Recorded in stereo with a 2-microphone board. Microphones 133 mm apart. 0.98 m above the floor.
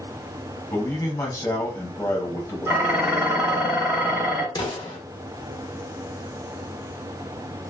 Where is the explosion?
30° left (ahead or behind), 0.9 m.